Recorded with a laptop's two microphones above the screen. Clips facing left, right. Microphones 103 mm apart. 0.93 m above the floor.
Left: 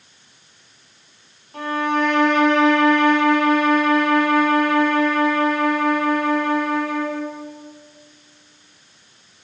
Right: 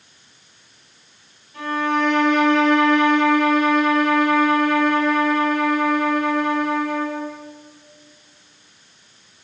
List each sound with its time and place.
1.5 s a violin: 55° left (ahead or behind), 1.6 m